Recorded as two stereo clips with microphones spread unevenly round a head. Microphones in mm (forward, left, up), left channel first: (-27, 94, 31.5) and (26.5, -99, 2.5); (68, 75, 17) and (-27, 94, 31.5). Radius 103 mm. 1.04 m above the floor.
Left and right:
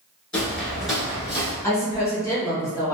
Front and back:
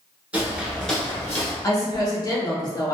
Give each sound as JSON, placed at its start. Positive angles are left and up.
{"t": 0.3, "sound": "footsteps", "azimuth_deg": 160, "distance_m": 1.0}
{"t": 1.6, "sound": "a woman speaking", "azimuth_deg": 25, "distance_m": 1.2}